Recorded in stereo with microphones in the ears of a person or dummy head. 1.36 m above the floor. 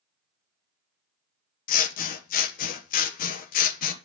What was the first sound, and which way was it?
Scissors, 50° left (ahead or behind).